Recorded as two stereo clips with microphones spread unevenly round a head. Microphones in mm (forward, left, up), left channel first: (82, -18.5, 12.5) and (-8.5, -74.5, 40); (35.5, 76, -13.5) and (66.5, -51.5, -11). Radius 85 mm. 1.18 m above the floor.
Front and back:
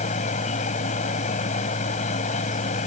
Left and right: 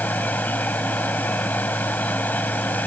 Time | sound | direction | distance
0.0 | a machine running | 25° left | ?